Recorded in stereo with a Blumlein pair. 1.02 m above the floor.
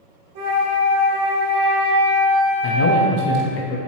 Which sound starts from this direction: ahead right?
A flute, at 0.3 s.